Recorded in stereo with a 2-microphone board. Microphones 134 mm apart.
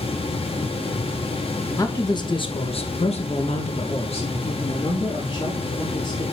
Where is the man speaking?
25° left (ahead or behind), 1.1 m; by 6.2 s 40° left (ahead or behind), 2.5 m.